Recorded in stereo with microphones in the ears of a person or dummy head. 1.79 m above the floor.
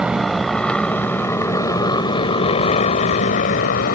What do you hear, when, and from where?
0.0 s a motorcycle: centre (ahead or behind); by 4.0 s 50° left (ahead or behind)